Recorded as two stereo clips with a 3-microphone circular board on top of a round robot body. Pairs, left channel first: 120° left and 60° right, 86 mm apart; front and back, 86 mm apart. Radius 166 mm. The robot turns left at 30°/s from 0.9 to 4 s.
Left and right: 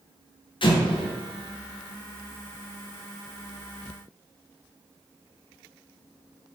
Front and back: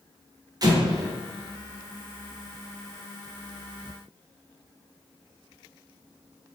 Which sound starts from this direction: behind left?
An explosion, at 0.6 s.